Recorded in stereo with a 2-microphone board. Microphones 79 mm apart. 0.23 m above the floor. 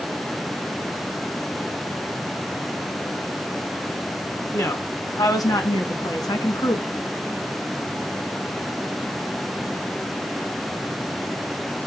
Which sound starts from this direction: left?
A woman speaking, at 4.5 s.